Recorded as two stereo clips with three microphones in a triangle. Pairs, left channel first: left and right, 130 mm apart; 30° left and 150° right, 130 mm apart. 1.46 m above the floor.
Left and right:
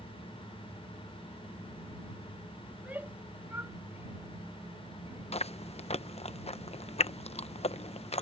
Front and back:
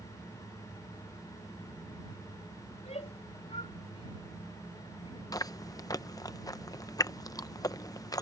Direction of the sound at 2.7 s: 10° right.